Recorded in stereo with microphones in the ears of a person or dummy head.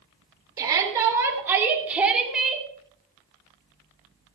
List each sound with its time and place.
0.6 s a shout: 20° right (ahead or behind), 3.5 m; by 2.7 s centre (ahead or behind), 2.5 m